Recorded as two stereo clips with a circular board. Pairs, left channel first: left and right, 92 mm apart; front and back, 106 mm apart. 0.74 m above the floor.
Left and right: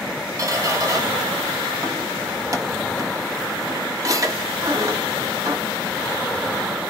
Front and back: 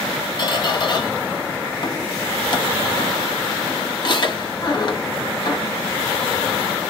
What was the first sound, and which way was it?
A squeak, 40° right.